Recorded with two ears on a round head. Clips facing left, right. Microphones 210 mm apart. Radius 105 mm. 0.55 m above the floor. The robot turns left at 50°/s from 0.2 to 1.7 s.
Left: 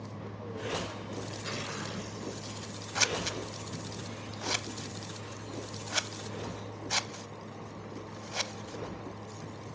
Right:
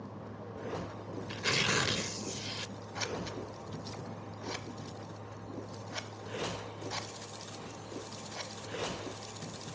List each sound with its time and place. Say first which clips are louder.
1.3 s tearing paper: right 4 dB; 60° right (ahead or behind), 0.8 m; by 2.7 s 80° right, 0.8 m
3.0 s scissors: left 3 dB; 65° left (ahead or behind), 0.7 m